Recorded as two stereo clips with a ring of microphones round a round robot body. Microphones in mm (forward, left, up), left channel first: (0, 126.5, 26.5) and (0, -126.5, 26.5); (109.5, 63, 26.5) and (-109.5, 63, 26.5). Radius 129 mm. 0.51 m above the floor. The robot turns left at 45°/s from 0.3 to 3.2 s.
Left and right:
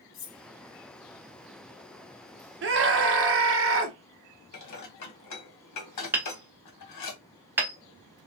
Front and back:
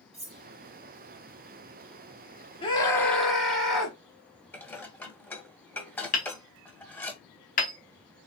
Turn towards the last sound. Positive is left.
turn(degrees=-15)